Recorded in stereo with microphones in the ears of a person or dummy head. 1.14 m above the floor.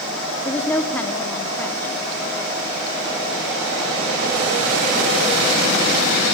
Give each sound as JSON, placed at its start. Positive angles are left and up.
{"t": 0.5, "sound": "a woman speaking", "side_deg": 5, "distance_m": 2.0}